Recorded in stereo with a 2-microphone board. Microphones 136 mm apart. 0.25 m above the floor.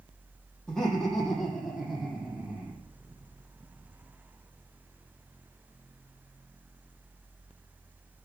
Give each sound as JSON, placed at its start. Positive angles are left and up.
{"t": 0.7, "sound": "laughter", "side_deg": 0, "distance_m": 9.0}